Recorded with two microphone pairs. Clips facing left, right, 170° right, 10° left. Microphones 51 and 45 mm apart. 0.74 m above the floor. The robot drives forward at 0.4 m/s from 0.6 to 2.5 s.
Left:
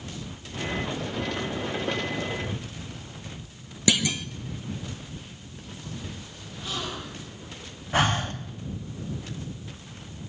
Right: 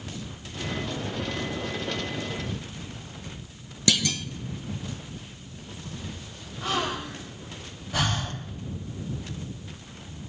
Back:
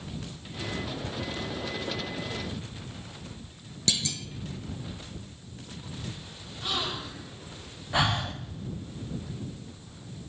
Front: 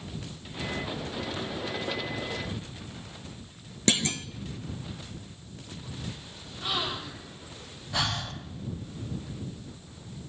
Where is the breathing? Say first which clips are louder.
Left 4 dB, back 4 dB; 125° left, 1.2 m.